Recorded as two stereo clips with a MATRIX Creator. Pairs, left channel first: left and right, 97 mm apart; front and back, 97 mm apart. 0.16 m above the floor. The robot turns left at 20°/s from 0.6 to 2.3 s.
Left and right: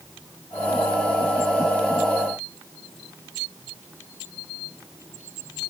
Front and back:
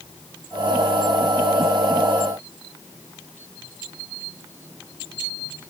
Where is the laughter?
No laughter in this recording.